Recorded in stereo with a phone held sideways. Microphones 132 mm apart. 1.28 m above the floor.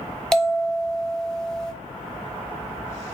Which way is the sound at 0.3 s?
5° left (ahead or behind).